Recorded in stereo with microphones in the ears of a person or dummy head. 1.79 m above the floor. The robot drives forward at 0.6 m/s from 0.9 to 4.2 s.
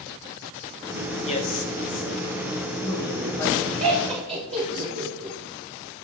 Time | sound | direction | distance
1.2 | a man speaking | 35° left (ahead or behind) | 0.7 m
3.8 | laughter | 45° right (ahead or behind) | 1.2 m